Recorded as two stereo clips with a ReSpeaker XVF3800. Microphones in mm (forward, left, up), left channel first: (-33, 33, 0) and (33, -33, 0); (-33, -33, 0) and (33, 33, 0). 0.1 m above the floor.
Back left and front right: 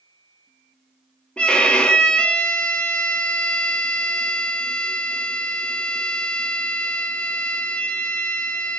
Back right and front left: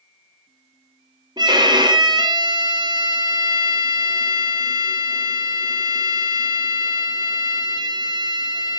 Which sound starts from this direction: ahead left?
A violin, at 1.4 s.